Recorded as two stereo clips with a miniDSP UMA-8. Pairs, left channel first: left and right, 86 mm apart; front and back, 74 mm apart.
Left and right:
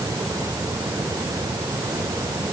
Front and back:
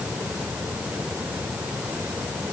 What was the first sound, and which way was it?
Only background noise.